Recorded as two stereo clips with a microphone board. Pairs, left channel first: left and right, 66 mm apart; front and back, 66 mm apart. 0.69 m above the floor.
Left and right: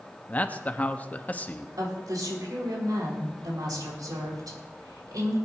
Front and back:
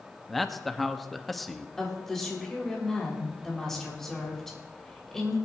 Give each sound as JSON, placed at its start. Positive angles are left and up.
{"t": 0.3, "sound": "a man speaking", "azimuth_deg": 85, "distance_m": 0.8}
{"t": 1.8, "sound": "a woman speaking", "azimuth_deg": -85, "distance_m": 3.5}